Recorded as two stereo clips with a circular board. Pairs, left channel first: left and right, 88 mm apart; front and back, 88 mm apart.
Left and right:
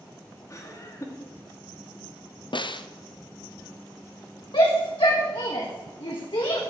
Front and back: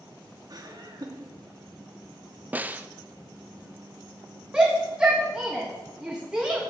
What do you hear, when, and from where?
0.5 s laughter: 140° left, 2.5 m
2.5 s a snare drum: 110° left, 0.6 m
4.5 s a shout: 100° left, 1.6 m